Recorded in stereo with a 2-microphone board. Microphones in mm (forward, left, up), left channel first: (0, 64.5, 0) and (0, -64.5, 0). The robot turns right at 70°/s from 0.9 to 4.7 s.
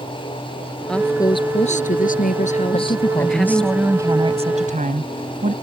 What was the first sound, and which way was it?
A woman speaking, 5° left.